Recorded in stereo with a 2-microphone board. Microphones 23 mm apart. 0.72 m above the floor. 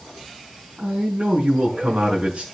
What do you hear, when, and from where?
0.8 s a man speaking: 55° right (ahead or behind), 5 m